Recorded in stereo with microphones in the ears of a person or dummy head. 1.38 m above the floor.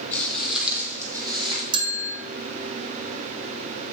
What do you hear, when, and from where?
0.1 s footsteps: 10° left (ahead or behind), 3 m; by 1.6 s 30° right (ahead or behind), 3.5 m
1.7 s a bell: 25° right (ahead or behind), 1.1 m